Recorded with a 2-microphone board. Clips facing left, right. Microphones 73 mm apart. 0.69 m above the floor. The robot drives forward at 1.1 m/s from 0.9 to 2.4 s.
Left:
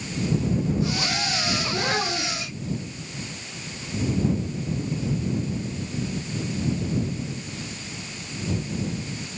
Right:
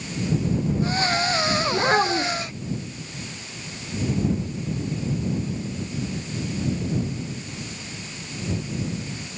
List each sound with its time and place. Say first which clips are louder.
1.7 s a child speaking: right 7 dB; 30° right (ahead or behind), 1.8 m; by 2.5 s 50° right (ahead or behind), 1.2 m